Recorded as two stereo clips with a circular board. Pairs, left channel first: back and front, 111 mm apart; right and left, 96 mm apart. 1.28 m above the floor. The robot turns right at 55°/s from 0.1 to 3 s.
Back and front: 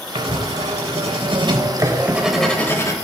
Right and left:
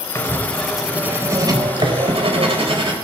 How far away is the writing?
About 4 m.